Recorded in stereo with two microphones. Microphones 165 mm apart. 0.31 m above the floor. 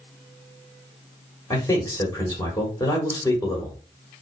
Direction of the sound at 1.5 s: 20° left (ahead or behind).